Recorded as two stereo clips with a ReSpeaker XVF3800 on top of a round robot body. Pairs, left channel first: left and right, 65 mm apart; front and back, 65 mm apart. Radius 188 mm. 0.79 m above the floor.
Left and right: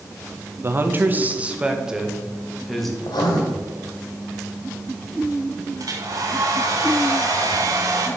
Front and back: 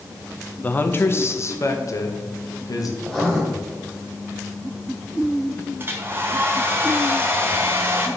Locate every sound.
0.6 s a man speaking: 55° right, 1.3 m; by 2.9 s 5° left, 2.0 m
3.0 s writing: 85° left, 1.7 m
5.8 s a hair dryer: 125° right, 1.2 m